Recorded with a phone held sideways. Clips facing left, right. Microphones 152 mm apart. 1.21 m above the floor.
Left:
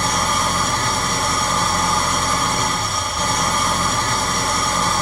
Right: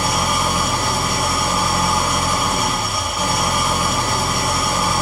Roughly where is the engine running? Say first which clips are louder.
Right 1 dB; centre.